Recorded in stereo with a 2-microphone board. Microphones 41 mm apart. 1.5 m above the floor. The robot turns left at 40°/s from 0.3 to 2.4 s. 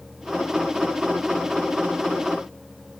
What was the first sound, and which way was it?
Only background noise.